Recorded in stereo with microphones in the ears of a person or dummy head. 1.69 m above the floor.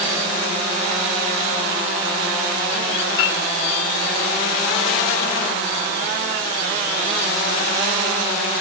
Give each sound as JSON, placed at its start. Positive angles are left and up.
{"t": 3.2, "sound": "a piano", "side_deg": 65, "distance_m": 3.0}